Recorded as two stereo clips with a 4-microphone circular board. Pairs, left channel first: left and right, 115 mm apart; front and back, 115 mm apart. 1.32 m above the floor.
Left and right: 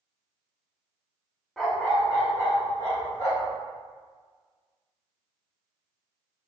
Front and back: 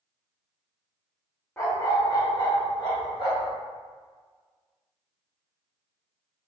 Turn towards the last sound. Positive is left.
turn(degrees=40)